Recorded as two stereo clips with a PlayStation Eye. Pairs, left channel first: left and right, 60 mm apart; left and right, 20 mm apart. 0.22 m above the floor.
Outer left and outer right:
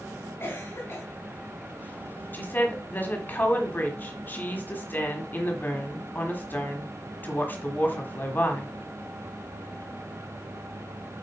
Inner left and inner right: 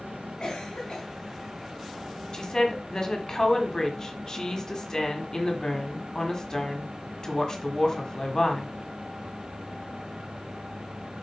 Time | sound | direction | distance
0.4 | a cough | 45° left (ahead or behind) | 2 m
2.3 | a woman speaking | 35° left (ahead or behind) | 1.5 m